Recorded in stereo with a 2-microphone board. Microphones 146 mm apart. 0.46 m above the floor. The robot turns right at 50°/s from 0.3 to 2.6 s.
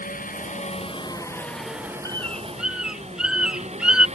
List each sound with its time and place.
0.0 s an engine running: 110° left; by 4.2 s 135° right
2.0 s a bird: 20° left (ahead or behind); by 4.1 s 5° right (ahead or behind)